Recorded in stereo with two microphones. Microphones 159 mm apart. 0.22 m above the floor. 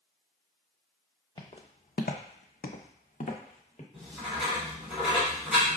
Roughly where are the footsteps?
Left.